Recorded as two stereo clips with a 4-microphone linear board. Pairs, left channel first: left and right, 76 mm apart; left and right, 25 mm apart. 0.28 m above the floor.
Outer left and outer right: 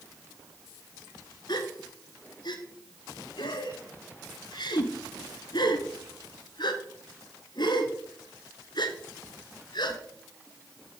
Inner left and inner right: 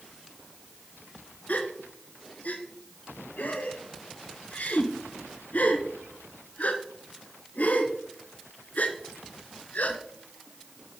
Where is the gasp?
75° left (ahead or behind), 0.9 m.